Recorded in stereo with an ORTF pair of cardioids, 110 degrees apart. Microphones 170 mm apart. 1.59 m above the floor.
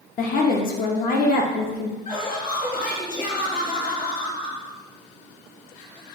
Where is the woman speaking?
60° left, 0.8 m.